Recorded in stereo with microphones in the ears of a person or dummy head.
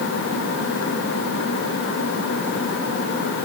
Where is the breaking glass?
I don't hear breaking glass.